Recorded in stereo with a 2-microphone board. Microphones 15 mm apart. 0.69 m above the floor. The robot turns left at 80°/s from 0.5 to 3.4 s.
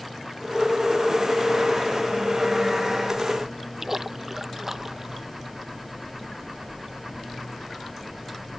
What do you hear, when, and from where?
3.8 s a splash: 20° right (ahead or behind)